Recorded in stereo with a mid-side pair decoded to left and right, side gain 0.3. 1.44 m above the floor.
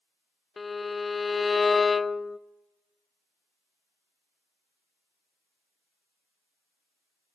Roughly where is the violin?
Ahead left.